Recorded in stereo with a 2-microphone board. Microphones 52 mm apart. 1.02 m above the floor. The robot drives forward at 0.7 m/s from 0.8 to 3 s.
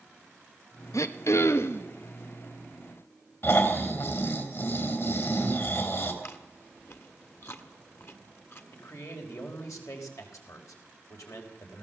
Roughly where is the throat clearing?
Left.